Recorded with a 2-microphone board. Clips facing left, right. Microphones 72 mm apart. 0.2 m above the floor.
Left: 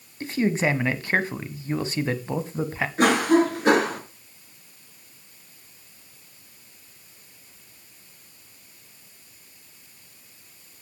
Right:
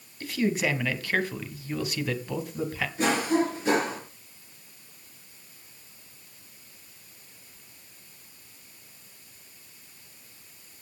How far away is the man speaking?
About 1.2 m.